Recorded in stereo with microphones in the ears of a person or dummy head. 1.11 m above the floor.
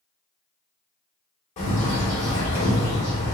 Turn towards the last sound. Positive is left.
turn(degrees=35)  # may be behind; listen again after turning